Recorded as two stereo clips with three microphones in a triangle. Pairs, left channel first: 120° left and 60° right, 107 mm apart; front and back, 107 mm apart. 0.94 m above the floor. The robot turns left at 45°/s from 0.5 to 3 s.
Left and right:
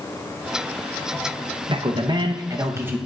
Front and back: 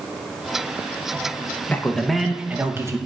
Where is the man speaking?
70° right, 0.8 m; by 3.0 s 130° right, 0.8 m.